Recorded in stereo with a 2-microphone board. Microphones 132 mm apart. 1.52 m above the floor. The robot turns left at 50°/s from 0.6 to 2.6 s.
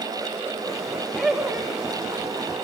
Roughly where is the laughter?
Centre.